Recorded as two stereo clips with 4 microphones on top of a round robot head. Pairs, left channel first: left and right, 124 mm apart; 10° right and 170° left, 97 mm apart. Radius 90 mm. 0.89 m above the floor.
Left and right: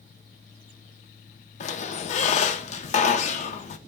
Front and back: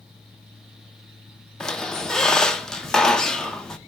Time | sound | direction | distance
1.6 | a squeak | 75° left | 0.5 m